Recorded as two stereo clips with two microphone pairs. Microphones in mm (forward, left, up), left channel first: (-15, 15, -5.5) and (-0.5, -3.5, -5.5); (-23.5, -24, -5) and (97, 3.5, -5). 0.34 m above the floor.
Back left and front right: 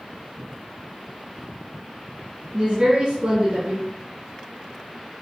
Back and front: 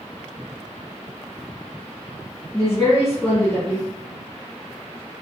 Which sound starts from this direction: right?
A woman speaking, at 2.5 s.